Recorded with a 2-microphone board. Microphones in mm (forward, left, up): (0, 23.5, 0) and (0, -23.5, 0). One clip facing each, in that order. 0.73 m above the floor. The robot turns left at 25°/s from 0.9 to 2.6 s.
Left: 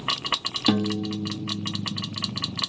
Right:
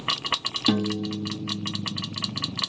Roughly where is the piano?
Ahead.